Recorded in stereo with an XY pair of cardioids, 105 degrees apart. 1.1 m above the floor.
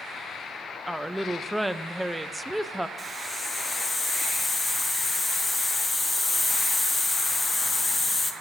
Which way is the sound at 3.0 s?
25° left.